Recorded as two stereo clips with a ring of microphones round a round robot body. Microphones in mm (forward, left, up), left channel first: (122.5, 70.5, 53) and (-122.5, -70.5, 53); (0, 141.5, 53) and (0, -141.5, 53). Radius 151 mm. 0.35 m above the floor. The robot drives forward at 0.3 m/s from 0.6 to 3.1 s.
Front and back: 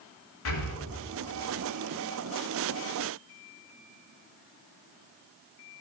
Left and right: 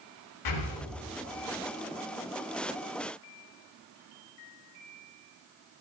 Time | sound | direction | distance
0.5 | breathing | 75° left | 0.7 m